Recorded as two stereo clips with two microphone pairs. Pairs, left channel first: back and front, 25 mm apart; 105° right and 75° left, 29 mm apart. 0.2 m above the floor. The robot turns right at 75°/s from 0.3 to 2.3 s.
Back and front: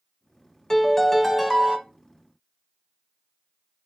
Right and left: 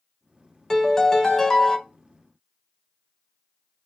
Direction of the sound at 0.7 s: 140° right.